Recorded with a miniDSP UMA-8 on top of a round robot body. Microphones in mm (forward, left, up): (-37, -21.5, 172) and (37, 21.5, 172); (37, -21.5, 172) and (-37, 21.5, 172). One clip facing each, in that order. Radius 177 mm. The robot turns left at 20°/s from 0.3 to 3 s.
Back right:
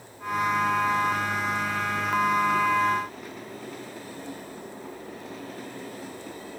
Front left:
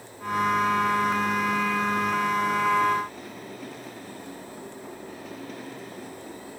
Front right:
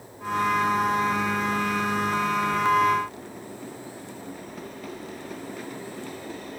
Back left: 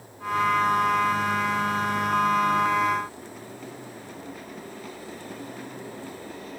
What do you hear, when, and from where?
Only background noise.